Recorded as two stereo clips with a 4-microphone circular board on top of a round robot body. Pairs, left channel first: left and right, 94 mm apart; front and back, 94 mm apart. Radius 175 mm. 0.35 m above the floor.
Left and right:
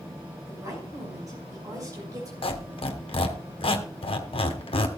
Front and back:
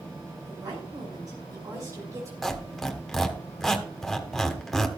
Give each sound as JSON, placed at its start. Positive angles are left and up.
{"t": 0.5, "sound": "a woman speaking", "azimuth_deg": -140, "distance_m": 6.0}
{"t": 2.4, "sound": "a squeak", "azimuth_deg": 90, "distance_m": 1.7}